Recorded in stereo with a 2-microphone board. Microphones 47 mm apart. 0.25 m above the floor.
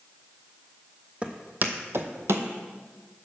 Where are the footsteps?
25° right (ahead or behind), 0.7 m; by 2.5 s 70° right (ahead or behind), 0.7 m.